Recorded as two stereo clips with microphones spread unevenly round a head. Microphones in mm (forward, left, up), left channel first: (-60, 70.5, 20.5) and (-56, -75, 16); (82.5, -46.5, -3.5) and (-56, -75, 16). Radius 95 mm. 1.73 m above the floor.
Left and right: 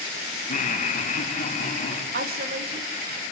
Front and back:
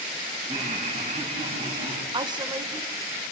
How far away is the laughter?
About 2.5 m.